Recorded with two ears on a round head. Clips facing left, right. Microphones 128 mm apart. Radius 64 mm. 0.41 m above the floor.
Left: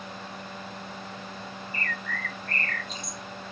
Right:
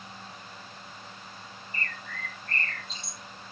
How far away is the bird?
About 0.6 m.